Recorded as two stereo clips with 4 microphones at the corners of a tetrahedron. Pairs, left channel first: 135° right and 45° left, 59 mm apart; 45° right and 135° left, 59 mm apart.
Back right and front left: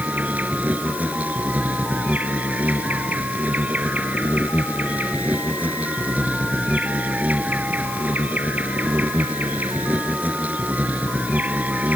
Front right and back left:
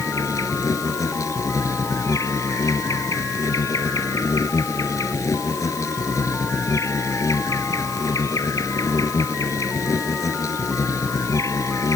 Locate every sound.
0.0 s an insect: 20° right